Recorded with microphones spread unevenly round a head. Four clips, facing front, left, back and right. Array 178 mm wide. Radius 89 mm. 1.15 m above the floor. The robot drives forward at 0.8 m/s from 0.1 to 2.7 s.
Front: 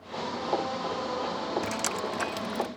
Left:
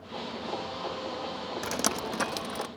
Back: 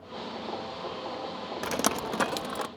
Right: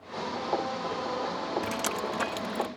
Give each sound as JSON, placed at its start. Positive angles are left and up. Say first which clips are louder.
{"t": 1.6, "sound": "dripping", "louder": "right 1 dB, back 2 dB", "azimuth_deg": 155}